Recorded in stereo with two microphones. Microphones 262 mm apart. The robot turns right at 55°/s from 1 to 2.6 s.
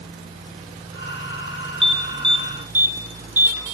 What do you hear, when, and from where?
1.8 s an alarm: 20° right (ahead or behind), 4.5 m; by 3.6 s 60° right (ahead or behind), 4.5 m